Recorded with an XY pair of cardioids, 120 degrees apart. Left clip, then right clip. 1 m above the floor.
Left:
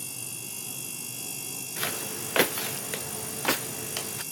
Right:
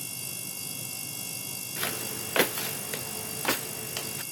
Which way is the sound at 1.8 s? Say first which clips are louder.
Left 1 dB; 5° left.